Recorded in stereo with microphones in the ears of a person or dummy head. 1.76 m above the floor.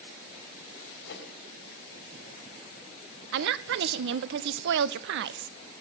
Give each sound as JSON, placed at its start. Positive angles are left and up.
{"t": 1.1, "sound": "a whoosh", "side_deg": 65, "distance_m": 3.5}
{"t": 3.3, "sound": "a woman speaking", "side_deg": -65, "distance_m": 0.5}